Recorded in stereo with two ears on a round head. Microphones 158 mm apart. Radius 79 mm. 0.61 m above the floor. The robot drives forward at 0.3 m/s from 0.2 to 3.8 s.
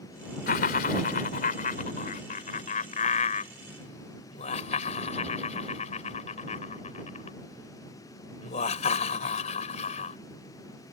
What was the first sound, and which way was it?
Laughter, 55° left (ahead or behind).